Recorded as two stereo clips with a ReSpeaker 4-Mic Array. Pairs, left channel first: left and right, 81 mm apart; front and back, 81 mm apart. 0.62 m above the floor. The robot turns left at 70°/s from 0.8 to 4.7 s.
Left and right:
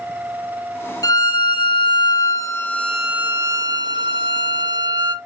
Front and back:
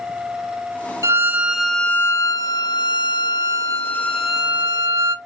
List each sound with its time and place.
1.0 s a violin: 135° left, 0.5 m; by 5.2 s 125° right, 0.5 m